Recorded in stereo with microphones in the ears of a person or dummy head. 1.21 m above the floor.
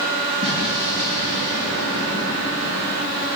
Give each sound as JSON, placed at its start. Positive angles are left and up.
{"t": 0.4, "sound": "an explosion", "side_deg": -70, "distance_m": 8.0}